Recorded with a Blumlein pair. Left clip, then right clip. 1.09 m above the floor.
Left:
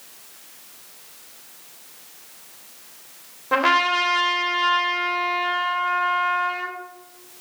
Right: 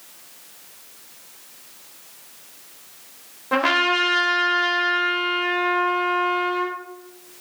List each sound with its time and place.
3.5 s a trumpet: straight ahead, 3 m